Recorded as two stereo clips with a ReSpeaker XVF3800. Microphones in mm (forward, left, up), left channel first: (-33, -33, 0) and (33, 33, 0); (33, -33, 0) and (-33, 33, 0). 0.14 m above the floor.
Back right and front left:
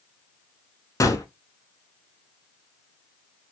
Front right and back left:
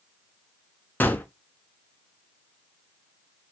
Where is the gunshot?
105° right, 0.6 m.